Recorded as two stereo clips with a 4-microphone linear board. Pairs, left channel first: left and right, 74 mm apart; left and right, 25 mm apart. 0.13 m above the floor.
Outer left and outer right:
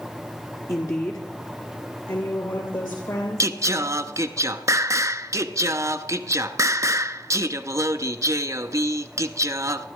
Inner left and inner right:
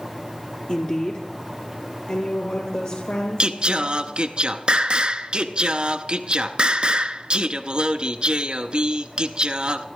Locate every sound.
0.7 s a woman speaking: 40° left (ahead or behind), 1.6 m; by 4.4 s 65° left (ahead or behind), 4 m
3.4 s singing: 45° right (ahead or behind), 0.6 m